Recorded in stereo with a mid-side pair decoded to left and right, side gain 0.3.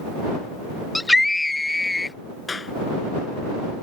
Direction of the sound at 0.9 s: 25° left.